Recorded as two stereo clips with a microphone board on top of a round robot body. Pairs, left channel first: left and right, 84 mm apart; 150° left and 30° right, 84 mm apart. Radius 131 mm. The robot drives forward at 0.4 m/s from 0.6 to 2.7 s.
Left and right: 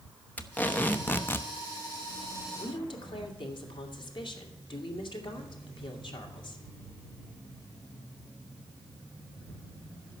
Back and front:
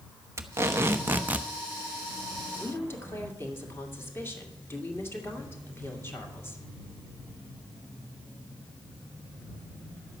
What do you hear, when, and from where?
0.4 s tape being pulled: 25° left, 1.0 m; by 1.5 s 40° left, 0.8 m
2.5 s a woman speaking: 90° left, 2 m